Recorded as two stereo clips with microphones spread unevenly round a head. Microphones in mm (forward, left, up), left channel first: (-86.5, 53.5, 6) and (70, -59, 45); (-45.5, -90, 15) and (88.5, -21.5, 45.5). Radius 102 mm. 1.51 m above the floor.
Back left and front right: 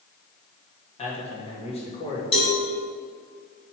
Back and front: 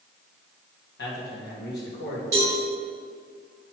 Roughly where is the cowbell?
Left.